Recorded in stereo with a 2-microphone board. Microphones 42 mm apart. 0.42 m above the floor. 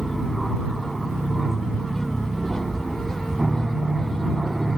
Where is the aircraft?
Centre (ahead or behind); by 4.8 s 5° right (ahead or behind).